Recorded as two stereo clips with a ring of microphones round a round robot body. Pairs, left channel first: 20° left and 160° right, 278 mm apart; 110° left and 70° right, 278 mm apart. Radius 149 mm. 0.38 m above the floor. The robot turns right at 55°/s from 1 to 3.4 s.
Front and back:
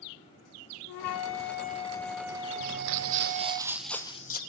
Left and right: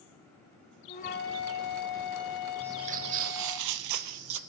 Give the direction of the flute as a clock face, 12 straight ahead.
10 o'clock.